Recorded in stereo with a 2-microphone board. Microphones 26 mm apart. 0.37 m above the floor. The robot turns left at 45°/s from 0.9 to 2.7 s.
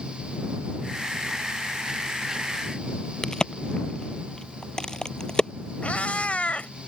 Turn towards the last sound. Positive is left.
turn(degrees=60)  # may be behind; listen again after turning